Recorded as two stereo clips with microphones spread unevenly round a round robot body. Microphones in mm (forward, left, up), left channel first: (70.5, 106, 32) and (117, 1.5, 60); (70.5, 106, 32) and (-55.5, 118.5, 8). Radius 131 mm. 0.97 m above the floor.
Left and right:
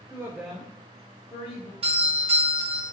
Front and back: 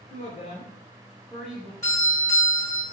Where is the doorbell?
75° right, 1.2 m.